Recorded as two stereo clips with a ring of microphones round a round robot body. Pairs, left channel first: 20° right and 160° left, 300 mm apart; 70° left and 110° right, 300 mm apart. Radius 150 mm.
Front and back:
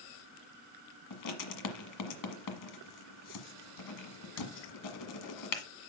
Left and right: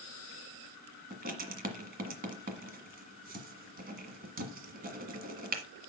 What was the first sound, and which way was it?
Writing, 50° right.